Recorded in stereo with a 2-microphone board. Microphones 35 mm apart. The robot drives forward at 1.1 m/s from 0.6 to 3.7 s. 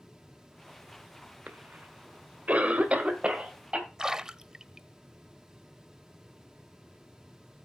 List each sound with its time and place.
1.5 s a cough: 60° right (ahead or behind), 1.7 m; by 3.9 s 30° right (ahead or behind), 3 m
4.0 s a splash: 20° right (ahead or behind), 0.6 m